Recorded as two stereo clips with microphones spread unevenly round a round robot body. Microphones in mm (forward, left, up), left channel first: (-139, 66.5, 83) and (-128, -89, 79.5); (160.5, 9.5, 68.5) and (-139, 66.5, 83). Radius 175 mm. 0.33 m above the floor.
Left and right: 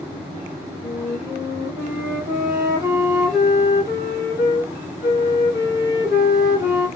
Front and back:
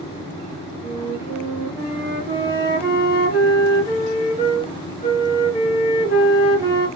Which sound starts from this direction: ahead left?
A flute, at 0.8 s.